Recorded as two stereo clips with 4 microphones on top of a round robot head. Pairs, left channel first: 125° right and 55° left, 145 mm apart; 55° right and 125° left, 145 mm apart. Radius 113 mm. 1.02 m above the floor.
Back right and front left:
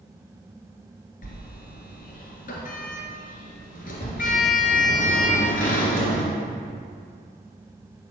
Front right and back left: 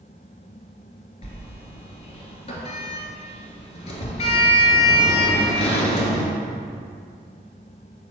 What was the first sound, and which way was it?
A sliding door, 105° right.